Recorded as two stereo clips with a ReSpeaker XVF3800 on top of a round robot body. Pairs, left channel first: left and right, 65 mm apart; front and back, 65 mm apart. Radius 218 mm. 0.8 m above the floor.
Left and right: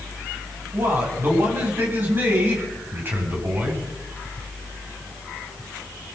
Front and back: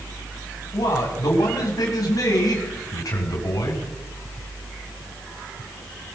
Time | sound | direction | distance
0.7 | a man speaking | 30° right | 8.5 m